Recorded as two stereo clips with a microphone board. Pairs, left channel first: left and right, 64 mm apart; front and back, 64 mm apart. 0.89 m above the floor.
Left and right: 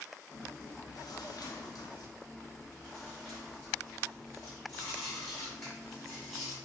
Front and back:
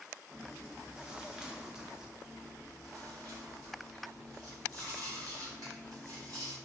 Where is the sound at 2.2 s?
170° left, 1.8 m.